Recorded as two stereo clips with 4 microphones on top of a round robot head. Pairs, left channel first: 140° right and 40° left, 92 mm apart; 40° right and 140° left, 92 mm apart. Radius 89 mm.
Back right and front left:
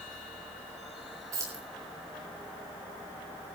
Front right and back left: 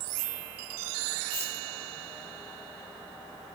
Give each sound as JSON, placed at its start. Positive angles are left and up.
{"t": 1.3, "sound": "keys jangling", "azimuth_deg": -20, "distance_m": 8.5}